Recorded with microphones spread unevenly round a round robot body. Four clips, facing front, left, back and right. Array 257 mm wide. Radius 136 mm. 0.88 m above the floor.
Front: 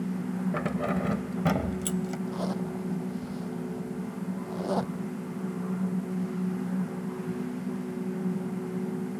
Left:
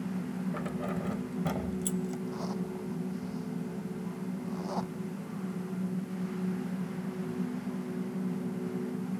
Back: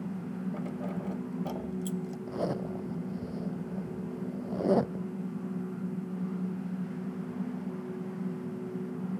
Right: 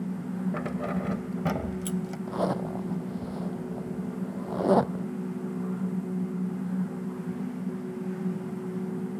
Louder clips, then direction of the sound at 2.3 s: Right 7 dB, front 1 dB; 115° right.